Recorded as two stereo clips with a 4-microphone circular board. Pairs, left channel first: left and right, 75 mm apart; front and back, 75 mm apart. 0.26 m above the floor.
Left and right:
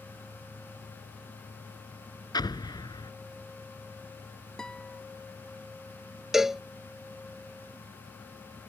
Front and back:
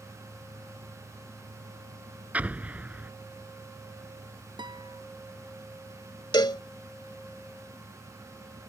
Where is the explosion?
110° left.